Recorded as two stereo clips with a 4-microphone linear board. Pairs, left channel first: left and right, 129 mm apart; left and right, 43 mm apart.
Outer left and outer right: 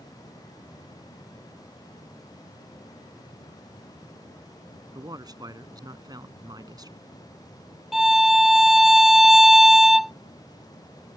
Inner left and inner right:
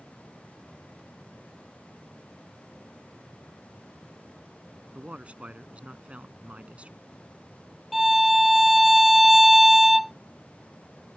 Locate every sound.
5.0 s a man speaking: 30° right (ahead or behind)
7.9 s a violin: centre (ahead or behind)